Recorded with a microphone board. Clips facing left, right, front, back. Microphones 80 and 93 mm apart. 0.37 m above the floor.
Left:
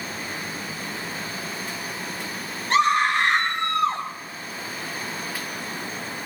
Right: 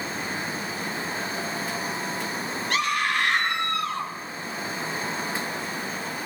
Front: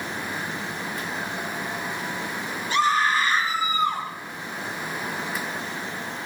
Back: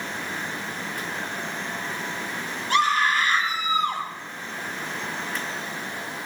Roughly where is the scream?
Behind left.